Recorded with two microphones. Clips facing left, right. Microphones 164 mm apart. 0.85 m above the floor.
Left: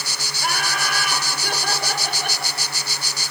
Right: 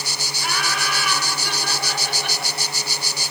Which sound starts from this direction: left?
Laughter, at 0.4 s.